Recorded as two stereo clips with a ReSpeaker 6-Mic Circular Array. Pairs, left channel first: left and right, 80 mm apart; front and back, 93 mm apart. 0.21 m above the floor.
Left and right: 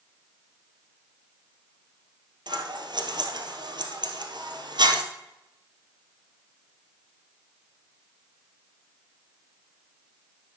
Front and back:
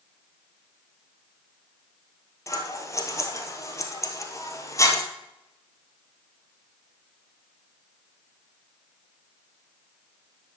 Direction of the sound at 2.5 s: 60° right.